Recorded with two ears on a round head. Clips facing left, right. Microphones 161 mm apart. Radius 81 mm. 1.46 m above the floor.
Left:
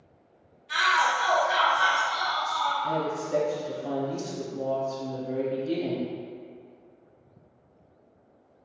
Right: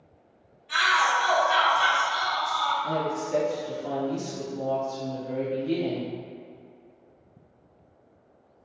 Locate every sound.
0.7 s a shout: 5° left (ahead or behind), 0.6 m
2.8 s a woman speaking: 10° left (ahead or behind), 1.3 m